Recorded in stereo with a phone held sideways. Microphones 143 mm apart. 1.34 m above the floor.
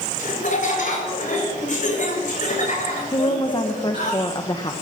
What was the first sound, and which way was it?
Laughter, 65° left (ahead or behind).